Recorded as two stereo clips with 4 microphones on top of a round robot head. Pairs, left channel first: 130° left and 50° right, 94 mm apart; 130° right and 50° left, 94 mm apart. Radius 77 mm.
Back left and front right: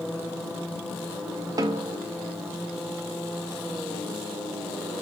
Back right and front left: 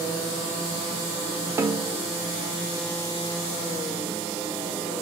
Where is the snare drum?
5° right, 0.7 m.